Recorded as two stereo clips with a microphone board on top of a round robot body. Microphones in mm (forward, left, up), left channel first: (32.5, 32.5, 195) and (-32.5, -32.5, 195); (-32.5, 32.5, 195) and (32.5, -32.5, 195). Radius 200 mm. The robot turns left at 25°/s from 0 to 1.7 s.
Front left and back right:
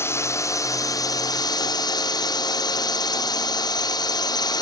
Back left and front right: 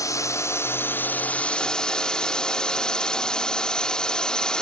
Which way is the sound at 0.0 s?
100° left.